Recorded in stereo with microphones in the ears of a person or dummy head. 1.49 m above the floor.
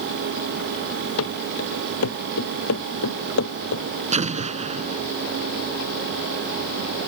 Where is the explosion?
40° right (ahead or behind).